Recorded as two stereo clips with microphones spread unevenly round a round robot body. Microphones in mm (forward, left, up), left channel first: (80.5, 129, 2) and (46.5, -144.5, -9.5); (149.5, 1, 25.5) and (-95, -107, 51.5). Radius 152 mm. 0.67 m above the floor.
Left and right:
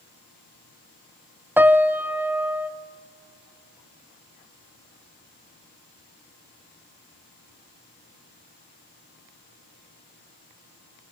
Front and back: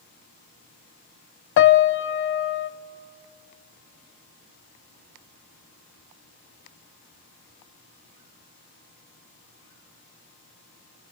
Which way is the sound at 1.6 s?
15° right.